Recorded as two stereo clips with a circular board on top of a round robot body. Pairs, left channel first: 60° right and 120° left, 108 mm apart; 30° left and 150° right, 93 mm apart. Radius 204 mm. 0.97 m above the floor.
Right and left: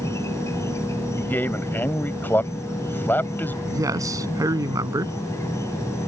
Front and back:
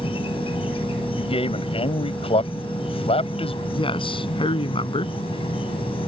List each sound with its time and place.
0.0 s an insect: 5° left
1.2 s a man speaking: 15° left
3.6 s a man speaking: 60° left